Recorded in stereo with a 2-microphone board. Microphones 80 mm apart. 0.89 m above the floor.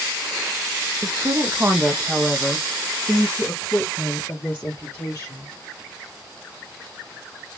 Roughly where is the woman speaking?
Right.